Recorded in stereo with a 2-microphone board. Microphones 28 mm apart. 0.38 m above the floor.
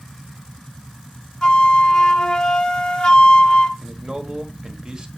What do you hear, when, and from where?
1.4 s a flute: 30° left (ahead or behind), 0.8 m
3.8 s a man speaking: 25° right (ahead or behind), 1.6 m